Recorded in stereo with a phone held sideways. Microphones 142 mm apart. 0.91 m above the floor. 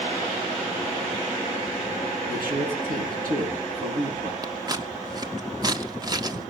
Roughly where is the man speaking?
Right.